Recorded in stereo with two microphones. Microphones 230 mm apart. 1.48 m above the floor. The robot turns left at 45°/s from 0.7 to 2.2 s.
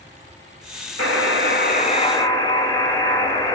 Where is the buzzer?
75° left, 3 m; by 3.5 s 20° left, 3 m.